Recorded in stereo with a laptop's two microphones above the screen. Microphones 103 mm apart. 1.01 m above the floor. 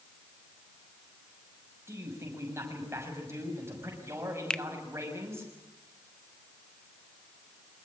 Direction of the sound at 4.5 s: 10° left (ahead or behind).